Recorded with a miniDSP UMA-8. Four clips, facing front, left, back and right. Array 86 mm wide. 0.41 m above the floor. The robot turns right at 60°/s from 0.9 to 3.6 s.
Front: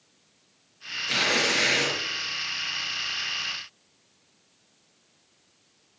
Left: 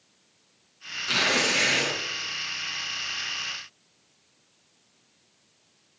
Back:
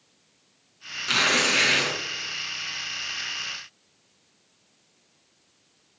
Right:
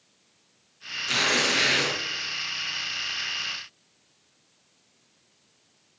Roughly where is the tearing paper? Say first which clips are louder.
Even, back 2 dB; behind.